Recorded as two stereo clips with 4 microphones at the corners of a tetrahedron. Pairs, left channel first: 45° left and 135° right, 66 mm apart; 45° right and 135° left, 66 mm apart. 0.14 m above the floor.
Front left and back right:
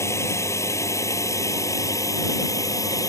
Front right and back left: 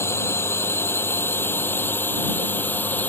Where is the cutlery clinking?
No cutlery clinking in this recording.